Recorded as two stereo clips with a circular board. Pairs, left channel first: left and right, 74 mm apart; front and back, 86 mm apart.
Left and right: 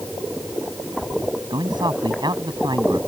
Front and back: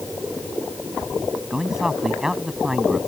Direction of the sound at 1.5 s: 95° right.